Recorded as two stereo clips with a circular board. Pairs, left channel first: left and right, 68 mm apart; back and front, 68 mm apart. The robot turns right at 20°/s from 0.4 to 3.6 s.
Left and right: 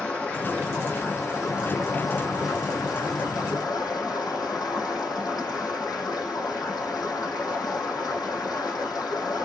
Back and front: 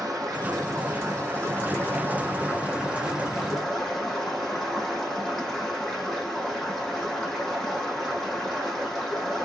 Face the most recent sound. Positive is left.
turn(degrees=95)